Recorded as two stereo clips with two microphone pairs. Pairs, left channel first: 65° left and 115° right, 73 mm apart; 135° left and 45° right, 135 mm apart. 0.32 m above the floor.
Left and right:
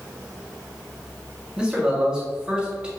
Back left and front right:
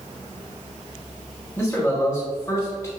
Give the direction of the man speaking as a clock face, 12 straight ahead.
6 o'clock.